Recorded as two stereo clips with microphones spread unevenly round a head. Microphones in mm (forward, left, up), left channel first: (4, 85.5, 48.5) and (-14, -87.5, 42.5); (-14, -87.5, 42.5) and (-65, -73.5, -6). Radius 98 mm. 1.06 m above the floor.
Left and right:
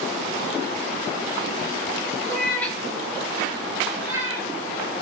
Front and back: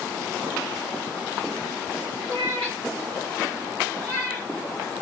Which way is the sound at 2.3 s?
15° left.